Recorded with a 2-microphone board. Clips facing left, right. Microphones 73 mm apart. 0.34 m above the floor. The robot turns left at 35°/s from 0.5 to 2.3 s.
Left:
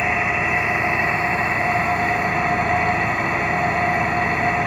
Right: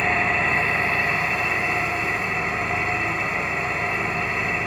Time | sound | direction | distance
0.0 | an engine running | 170° left | 2.0 m